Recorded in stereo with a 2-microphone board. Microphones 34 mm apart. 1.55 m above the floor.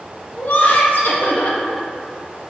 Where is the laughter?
60° left (ahead or behind), 0.8 m.